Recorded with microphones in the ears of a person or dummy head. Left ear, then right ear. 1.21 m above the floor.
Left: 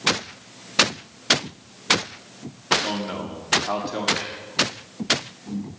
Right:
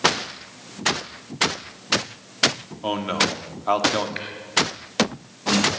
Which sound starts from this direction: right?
A man speaking, at 2.8 s.